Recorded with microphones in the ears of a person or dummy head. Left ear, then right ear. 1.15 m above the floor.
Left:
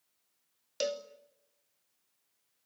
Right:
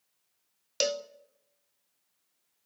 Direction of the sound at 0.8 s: 20° right (ahead or behind).